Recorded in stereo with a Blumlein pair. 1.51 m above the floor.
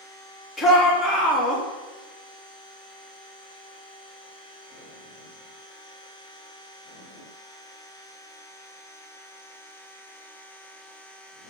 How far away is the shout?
About 3.5 m.